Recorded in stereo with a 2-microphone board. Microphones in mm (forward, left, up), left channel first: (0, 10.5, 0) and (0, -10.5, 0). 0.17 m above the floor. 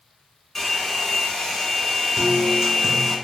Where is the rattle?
I don't hear a rattle.